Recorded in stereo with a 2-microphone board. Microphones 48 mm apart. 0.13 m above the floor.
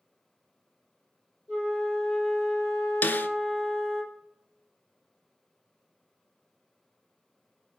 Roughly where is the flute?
Centre.